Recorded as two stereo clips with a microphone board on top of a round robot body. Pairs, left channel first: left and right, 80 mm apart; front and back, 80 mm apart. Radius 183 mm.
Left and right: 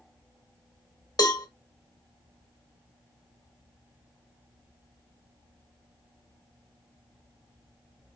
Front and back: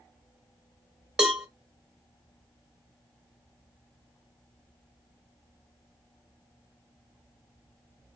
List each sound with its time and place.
1.2 s a cowbell: 100° left, 1.6 m